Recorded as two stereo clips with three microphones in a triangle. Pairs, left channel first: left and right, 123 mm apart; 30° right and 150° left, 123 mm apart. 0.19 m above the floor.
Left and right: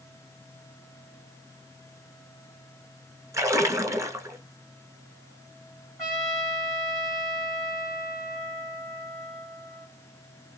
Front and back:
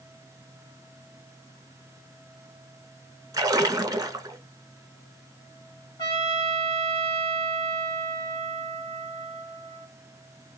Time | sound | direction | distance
3.3 | a splash | 150° right | 0.6 m
6.0 | a trumpet | 5° right | 1.9 m